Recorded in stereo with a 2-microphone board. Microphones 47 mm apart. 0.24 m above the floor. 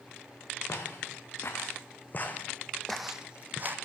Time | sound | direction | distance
0.7 | footsteps | 65° left (ahead or behind) | 1.5 m